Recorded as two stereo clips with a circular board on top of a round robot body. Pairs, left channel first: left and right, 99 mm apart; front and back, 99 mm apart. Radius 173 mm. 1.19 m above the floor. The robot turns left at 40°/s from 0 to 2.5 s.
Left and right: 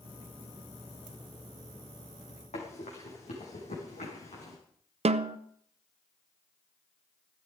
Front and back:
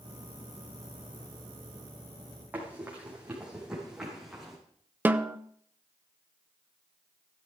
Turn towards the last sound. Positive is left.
turn(degrees=-105)